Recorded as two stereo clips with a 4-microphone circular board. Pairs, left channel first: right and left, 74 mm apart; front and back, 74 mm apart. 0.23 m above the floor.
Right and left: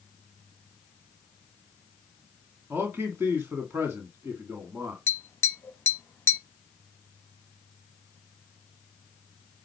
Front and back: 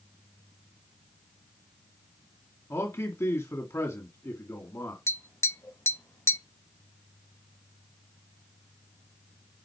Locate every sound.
2.7 s a man speaking: 40° left, 2 m
5.1 s tapping: 40° right, 0.8 m